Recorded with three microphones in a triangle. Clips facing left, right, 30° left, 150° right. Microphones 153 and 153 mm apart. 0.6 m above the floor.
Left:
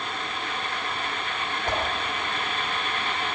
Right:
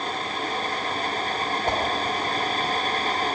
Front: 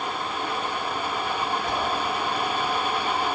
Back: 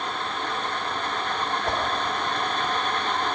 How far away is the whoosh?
About 2.5 m.